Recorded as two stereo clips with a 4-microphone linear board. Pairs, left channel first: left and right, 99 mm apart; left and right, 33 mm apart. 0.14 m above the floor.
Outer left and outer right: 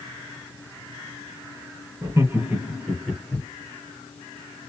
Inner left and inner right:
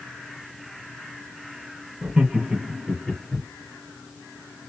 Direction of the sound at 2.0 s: 30° right (ahead or behind).